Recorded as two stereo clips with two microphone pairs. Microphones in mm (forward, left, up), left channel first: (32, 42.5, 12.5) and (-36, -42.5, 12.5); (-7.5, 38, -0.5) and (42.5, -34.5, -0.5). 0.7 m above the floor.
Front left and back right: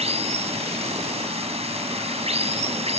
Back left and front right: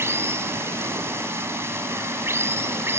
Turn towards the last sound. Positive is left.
turn(degrees=-115)